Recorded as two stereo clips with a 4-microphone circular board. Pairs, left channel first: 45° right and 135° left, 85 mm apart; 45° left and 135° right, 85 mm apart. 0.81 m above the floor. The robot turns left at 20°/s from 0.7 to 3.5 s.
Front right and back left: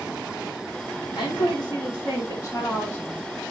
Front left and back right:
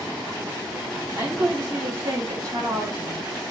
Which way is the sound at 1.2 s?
70° right.